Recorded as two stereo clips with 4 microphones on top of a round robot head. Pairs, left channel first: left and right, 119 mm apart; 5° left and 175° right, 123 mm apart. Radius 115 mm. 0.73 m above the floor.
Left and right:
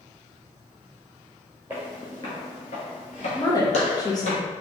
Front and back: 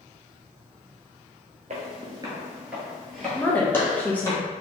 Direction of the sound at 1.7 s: 165° right.